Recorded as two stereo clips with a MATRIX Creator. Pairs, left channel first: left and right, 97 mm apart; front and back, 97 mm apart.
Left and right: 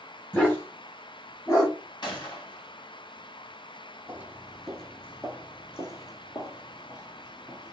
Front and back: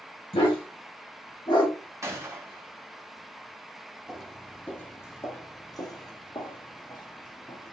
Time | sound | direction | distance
0.3 | a dog barking | 15° left | 3 m
2.0 | a gunshot | 125° left | 1.1 m
4.1 | footsteps | 100° right | 0.9 m